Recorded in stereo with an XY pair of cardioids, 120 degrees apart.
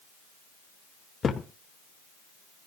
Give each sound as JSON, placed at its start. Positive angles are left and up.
{"t": 1.2, "sound": "a thud", "azimuth_deg": 35, "distance_m": 2.5}